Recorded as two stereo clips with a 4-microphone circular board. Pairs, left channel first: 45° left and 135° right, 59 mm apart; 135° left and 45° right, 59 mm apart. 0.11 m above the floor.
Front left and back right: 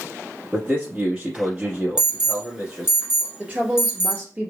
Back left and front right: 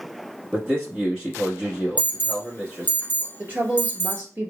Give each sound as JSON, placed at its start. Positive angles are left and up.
{"t": 0.5, "sound": "a man speaking", "azimuth_deg": -100, "distance_m": 1.5}
{"t": 2.0, "sound": "an alarm", "azimuth_deg": 155, "distance_m": 0.8}
{"t": 3.4, "sound": "a woman speaking", "azimuth_deg": -90, "distance_m": 1.7}